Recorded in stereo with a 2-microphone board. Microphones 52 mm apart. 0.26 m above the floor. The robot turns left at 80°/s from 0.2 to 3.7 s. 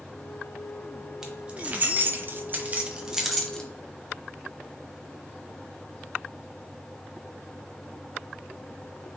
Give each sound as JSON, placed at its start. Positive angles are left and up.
{"t": 1.2, "sound": "keys jangling", "side_deg": -10, "distance_m": 0.8}